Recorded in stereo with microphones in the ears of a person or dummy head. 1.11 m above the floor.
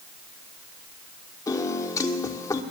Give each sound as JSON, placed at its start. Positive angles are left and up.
{"t": 1.5, "sound": "a piano", "side_deg": 20, "distance_m": 1.0}